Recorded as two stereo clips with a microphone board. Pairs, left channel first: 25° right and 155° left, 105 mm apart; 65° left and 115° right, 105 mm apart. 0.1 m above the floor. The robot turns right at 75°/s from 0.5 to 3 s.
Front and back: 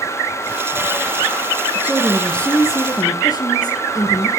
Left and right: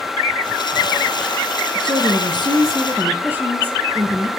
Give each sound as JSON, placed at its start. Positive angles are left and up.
{"t": 1.8, "sound": "a woman speaking", "azimuth_deg": -145, "distance_m": 2.0}